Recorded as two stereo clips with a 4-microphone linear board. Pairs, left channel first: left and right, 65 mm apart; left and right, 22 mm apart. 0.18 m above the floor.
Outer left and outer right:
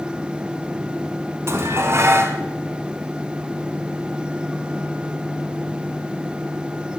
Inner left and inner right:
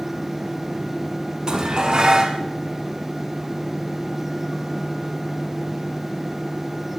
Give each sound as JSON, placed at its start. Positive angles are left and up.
{"t": 1.5, "sound": "dishes clattering", "side_deg": -40, "distance_m": 1.1}